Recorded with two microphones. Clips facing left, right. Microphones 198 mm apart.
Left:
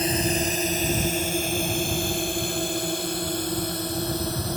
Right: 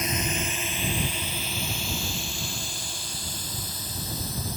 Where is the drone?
30° left (ahead or behind); by 4.6 s 65° left (ahead or behind).